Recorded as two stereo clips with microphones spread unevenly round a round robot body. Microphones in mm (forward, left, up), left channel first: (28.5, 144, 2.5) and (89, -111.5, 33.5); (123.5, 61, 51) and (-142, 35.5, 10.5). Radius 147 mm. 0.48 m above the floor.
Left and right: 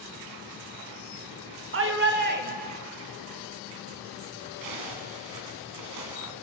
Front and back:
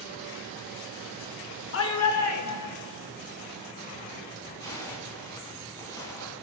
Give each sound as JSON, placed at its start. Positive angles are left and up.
{"t": 1.7, "sound": "a shout", "azimuth_deg": -40, "distance_m": 1.9}
{"t": 4.6, "sound": "a zipper", "azimuth_deg": -75, "distance_m": 2.0}